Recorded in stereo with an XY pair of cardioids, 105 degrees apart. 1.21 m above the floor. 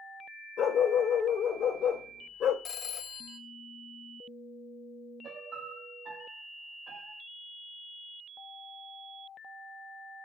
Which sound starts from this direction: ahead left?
A phone ringing, at 2.6 s.